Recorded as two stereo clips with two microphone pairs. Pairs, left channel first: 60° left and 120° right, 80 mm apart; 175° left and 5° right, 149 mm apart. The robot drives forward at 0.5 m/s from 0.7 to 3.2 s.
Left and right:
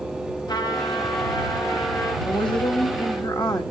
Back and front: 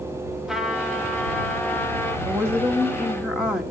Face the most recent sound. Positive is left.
turn(degrees=80)